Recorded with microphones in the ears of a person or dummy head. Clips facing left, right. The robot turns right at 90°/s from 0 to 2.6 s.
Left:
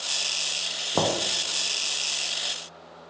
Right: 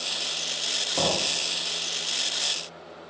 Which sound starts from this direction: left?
Knocking, at 0.9 s.